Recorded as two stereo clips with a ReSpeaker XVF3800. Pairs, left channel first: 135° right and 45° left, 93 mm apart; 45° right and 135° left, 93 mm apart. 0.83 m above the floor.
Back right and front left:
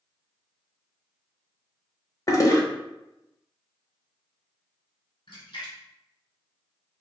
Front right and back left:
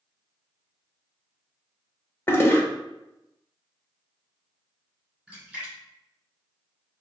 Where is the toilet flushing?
100° right, 0.6 m.